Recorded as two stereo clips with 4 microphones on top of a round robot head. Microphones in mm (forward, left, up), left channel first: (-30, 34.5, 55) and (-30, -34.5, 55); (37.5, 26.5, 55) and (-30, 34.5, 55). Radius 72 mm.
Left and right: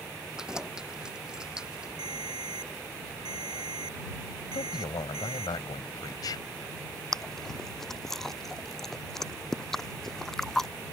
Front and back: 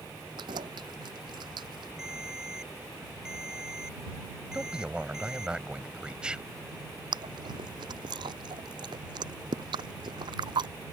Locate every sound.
0.4 s keys jangling: 170° right
2.0 s a ringtone: 105° right
4.5 s a man speaking: 100° left
7.1 s chewing: 175° left